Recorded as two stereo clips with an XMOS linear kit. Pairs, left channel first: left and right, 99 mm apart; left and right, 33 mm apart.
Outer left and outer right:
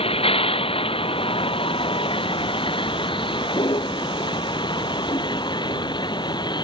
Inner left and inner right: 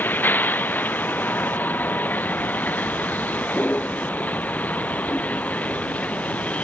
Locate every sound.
0.0 s a vehicle: 70° left (ahead or behind); by 6.7 s 50° left (ahead or behind)